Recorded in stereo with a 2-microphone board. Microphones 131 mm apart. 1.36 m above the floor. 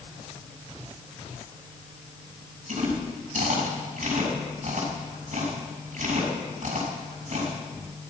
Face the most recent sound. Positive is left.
turn(degrees=-75)  # may be behind; listen again after turning